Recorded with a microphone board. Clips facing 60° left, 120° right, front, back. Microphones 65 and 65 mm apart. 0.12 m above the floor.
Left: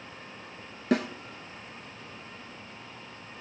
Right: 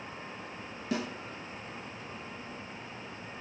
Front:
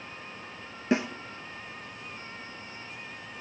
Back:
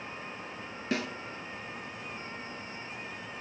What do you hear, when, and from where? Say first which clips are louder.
0.9 s a snare drum: left 7 dB, front 6 dB; 65° left, 0.6 m